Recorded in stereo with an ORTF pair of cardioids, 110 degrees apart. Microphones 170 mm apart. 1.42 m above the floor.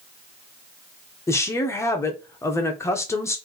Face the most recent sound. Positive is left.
turn(degrees=15)